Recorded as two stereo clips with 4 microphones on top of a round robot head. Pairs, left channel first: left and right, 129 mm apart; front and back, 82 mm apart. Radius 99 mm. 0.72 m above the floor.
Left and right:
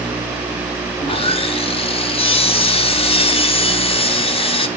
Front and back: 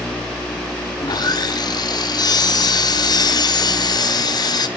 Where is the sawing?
40° left, 0.8 m.